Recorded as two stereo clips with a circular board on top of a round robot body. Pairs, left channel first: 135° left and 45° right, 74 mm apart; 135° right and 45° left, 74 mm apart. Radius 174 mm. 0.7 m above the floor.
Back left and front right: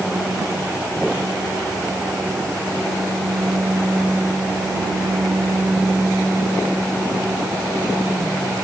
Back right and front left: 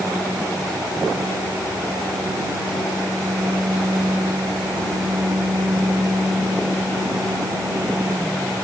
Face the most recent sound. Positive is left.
No sound to turn to.